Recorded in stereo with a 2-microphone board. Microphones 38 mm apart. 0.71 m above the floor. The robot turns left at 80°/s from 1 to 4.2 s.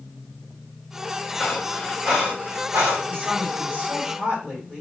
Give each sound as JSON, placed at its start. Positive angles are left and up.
{"t": 1.4, "sound": "breathing", "side_deg": 40, "distance_m": 3.0}
{"t": 3.1, "sound": "a woman speaking", "azimuth_deg": -90, "distance_m": 4.0}